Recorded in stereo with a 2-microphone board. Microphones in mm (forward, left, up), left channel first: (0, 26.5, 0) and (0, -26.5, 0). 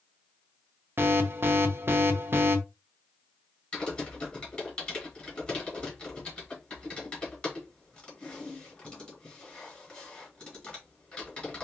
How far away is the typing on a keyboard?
About 2.5 m.